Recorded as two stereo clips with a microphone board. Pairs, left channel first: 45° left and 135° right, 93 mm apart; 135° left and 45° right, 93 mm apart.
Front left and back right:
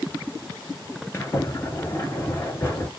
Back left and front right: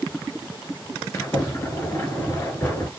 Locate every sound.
1.1 s a sliding door: 90° left, 1.5 m